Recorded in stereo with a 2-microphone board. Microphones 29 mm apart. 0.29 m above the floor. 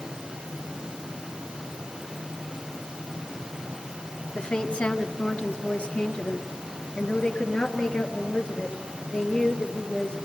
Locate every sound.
4.3 s a woman speaking: 55° left (ahead or behind), 2.0 m; by 10.2 s 40° left (ahead or behind), 6.5 m